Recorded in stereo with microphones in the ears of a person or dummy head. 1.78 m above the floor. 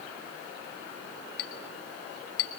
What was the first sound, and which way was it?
A clink, 25° left (ahead or behind).